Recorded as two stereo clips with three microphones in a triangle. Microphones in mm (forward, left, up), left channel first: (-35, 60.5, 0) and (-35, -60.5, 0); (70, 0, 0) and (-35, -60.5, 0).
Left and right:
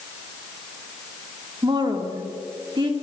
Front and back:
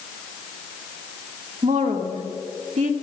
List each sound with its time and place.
1.6 s a woman speaking: 140° right, 1.8 m